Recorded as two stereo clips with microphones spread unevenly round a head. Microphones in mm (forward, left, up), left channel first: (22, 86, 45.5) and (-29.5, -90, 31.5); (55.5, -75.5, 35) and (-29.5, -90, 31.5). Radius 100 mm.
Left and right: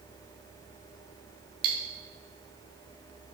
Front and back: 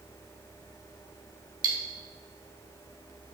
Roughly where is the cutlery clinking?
Behind right.